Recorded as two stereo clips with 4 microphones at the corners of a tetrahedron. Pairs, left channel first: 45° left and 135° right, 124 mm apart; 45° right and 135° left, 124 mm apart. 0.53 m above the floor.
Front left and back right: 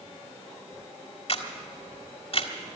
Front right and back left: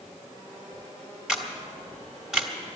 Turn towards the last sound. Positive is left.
turn(degrees=50)